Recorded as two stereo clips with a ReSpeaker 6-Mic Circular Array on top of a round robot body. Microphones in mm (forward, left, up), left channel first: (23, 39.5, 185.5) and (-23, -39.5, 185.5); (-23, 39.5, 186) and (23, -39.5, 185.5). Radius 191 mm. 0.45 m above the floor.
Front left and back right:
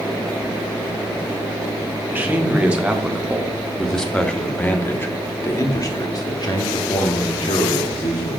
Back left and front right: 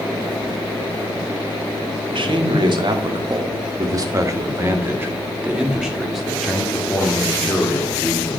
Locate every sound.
2.1 s a man speaking: 50° right, 2.5 m; by 8.4 s 55° left, 2.5 m